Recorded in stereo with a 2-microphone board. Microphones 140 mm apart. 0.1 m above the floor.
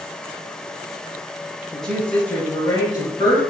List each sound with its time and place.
1.7 s a woman speaking: 5° left (ahead or behind), 1.4 m; by 3.4 s 35° left (ahead or behind), 1.6 m